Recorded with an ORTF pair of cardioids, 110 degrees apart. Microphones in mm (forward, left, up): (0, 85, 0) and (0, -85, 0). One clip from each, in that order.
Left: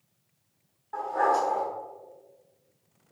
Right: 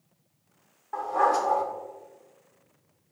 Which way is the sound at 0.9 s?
35° right.